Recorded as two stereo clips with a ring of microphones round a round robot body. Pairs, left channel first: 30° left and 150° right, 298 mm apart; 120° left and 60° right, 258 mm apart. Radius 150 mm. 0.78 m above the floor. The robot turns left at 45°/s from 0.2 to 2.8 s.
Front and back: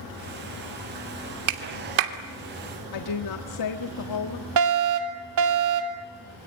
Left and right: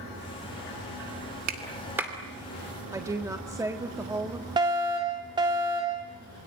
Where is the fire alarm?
135° right, 3 m.